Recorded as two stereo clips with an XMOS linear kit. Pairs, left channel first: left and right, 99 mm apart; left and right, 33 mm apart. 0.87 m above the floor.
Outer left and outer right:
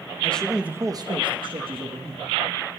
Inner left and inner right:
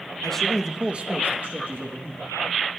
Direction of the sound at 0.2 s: 15° left (ahead or behind).